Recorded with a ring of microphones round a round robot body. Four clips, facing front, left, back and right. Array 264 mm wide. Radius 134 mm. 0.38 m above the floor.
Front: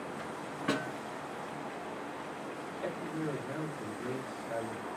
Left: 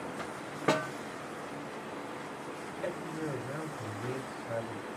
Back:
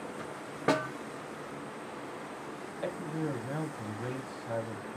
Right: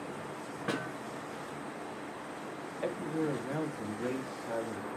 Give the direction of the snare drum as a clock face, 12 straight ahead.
7 o'clock.